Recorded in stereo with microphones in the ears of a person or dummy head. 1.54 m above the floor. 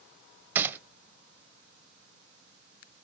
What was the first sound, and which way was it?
A gunshot, 15° right (ahead or behind).